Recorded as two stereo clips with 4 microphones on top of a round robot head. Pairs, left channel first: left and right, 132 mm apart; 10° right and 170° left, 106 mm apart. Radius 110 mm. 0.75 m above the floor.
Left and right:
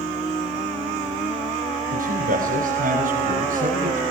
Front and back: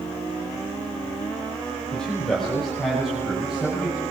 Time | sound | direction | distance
1.9 | a man speaking | 90° right | 5 m